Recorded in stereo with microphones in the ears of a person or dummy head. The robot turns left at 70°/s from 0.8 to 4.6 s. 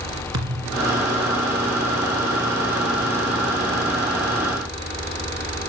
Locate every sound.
0.3 s a thud: 20° right (ahead or behind), 1.9 m